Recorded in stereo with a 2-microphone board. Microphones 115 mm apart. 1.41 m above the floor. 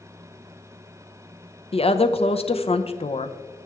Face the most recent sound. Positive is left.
turn(degrees=60)  # may be behind; listen again after turning